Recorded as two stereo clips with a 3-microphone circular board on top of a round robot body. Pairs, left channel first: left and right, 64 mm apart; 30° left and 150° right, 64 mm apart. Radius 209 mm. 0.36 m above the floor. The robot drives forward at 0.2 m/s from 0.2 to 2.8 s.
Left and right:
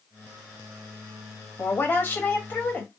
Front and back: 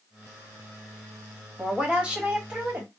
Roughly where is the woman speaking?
Behind left.